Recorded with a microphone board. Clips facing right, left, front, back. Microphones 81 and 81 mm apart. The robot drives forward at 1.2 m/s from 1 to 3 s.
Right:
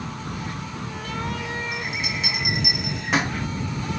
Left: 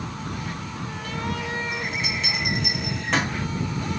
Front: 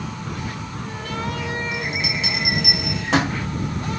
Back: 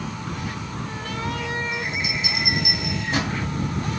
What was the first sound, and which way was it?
A bell, 5° right.